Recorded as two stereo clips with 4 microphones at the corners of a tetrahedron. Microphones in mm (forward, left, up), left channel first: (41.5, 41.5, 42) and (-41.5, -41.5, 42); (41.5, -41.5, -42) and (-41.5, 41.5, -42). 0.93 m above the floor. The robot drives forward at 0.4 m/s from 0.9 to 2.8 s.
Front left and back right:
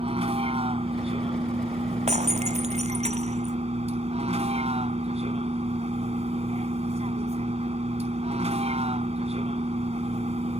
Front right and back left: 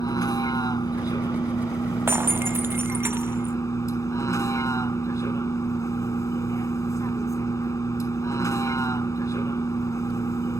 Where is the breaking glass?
155° right.